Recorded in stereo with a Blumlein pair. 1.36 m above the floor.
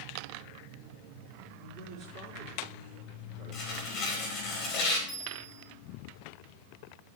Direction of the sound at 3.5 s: 35° left.